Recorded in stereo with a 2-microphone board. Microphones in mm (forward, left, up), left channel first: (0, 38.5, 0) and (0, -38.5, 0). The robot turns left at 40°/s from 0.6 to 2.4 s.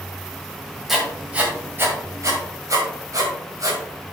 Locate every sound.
0.9 s writing: centre (ahead or behind), 2 m; by 3.8 s 45° right (ahead or behind), 2 m